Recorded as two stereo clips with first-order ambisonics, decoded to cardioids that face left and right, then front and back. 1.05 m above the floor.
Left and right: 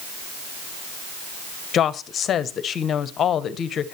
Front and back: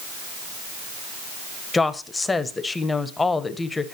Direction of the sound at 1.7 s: 70° left.